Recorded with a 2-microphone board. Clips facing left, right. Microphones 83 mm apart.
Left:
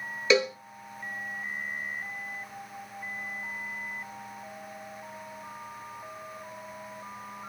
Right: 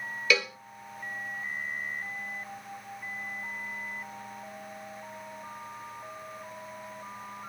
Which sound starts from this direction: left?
A cowbell, at 0.3 s.